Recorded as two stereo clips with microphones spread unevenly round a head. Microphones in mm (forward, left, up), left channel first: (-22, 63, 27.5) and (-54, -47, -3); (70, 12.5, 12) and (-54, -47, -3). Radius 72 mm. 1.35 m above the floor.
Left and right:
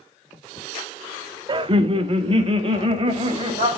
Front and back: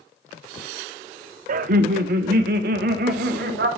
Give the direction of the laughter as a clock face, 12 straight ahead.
5 o'clock.